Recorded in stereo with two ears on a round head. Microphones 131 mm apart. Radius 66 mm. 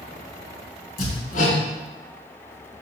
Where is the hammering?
65° left (ahead or behind), 3.5 m.